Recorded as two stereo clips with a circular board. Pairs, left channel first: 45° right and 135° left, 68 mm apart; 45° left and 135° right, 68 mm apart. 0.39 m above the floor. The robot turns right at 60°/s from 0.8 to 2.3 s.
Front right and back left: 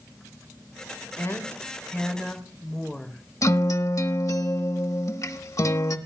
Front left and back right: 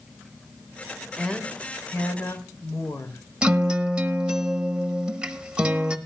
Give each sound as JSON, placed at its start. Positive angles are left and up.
{"t": 1.2, "sound": "a woman speaking", "azimuth_deg": -30, "distance_m": 1.5}
{"t": 3.4, "sound": "a guitar", "azimuth_deg": -60, "distance_m": 1.1}